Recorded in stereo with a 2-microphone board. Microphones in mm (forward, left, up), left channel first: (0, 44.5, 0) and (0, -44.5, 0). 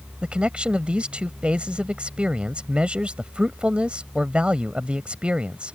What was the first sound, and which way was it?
A man speaking, 15° right (ahead or behind).